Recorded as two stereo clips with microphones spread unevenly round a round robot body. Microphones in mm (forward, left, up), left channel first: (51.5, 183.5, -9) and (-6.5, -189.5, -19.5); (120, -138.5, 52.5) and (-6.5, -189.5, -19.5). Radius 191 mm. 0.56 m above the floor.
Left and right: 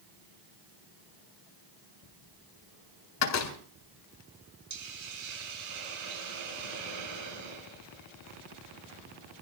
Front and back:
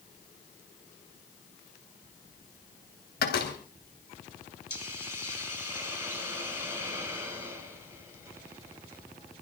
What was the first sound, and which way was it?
A door slam, 35° left.